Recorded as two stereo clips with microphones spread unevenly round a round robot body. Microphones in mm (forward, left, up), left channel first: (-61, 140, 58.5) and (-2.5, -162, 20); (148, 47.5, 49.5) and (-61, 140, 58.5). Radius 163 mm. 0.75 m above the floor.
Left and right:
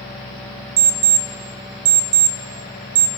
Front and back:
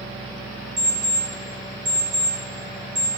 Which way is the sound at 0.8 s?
125° right.